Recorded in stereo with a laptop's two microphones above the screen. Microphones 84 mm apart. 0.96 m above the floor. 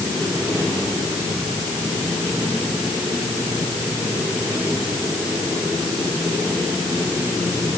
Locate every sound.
Only background noise.